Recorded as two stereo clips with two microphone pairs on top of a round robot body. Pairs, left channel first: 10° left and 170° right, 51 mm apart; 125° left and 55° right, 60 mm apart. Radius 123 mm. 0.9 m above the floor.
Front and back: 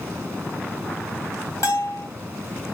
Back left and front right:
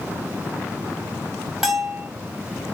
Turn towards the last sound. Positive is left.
turn(degrees=20)